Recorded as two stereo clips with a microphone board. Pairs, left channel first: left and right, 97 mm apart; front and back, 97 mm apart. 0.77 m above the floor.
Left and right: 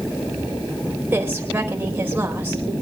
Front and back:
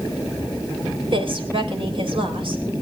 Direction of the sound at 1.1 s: 160° right.